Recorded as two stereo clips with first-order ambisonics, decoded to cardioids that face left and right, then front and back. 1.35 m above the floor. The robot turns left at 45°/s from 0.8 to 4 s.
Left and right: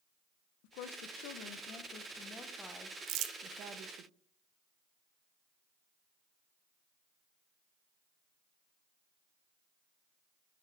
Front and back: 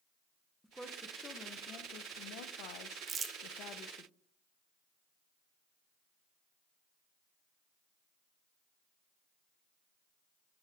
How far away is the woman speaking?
About 0.7 m.